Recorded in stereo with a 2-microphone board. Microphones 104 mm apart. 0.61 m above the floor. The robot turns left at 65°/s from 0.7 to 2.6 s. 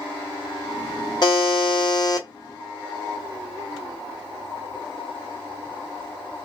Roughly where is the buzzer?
Behind left.